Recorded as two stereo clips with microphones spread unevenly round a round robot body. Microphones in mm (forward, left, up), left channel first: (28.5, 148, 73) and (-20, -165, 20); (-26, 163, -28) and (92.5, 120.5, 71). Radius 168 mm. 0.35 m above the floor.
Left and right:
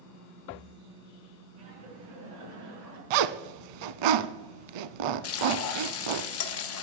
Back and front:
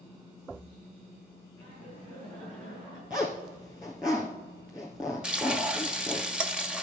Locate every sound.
1.6 s laughter: 85° right, 6 m; by 3.0 s 70° right, 5.5 m
3.1 s a zipper: 95° right, 0.6 m
5.2 s frying: 115° left, 1.1 m